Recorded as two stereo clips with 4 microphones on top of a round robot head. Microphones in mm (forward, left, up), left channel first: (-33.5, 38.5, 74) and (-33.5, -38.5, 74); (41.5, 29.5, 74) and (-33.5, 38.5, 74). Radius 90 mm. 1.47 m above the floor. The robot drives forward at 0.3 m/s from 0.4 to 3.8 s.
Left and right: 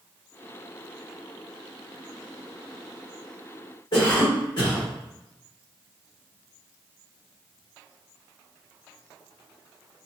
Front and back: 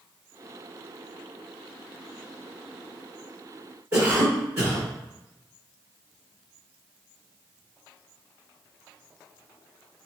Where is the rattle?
No rattle in this recording.